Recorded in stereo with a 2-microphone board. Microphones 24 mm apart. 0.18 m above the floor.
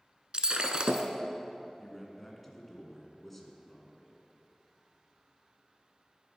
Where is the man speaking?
10° left (ahead or behind), 1.9 m.